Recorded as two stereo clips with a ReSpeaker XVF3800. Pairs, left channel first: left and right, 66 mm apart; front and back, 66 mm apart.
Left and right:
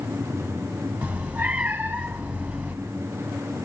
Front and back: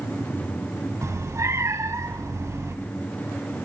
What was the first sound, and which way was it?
A cat meowing, 160° right.